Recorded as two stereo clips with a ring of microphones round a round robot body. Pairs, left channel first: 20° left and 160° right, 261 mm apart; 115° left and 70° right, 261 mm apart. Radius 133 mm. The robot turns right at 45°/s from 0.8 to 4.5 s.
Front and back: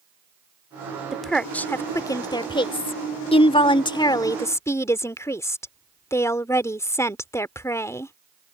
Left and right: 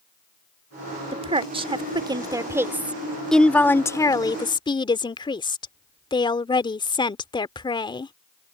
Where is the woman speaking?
70° right; by 8.1 s 80° left.